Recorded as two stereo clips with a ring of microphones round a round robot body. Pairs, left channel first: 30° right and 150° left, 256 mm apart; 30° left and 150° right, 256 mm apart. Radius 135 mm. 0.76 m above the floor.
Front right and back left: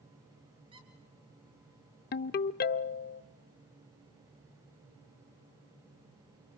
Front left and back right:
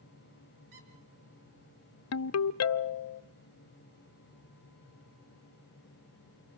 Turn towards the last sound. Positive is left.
turn(degrees=20)